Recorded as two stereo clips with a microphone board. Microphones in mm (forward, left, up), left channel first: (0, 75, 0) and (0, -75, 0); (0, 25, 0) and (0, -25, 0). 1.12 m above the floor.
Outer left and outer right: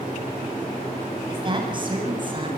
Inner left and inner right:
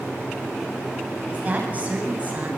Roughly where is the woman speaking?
Right.